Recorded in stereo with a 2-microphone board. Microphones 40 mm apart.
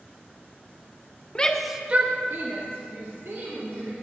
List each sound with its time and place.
1.4 s a shout: 25° left (ahead or behind), 0.7 m; by 3.9 s 75° right (ahead or behind), 2.5 m